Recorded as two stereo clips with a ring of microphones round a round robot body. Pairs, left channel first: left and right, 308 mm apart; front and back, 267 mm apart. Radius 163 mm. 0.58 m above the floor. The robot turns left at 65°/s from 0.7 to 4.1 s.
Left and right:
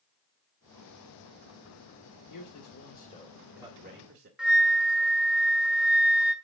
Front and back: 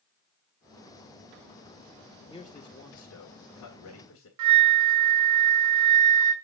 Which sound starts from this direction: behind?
A flute, at 4.4 s.